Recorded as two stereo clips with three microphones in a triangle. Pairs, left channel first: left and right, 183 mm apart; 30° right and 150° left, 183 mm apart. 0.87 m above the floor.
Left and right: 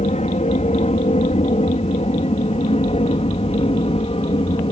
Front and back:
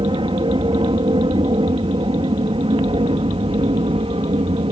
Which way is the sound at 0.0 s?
105° left.